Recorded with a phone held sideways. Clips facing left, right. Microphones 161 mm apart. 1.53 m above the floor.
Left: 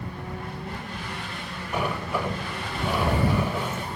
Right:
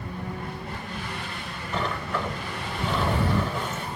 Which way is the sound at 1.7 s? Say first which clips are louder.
Left 2 dB; 10° left (ahead or behind).